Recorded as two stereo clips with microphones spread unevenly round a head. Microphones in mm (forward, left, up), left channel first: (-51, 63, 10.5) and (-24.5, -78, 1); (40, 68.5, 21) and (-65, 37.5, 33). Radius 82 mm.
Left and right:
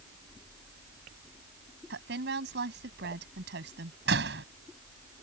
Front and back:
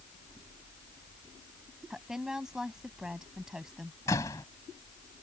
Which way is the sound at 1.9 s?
75° right.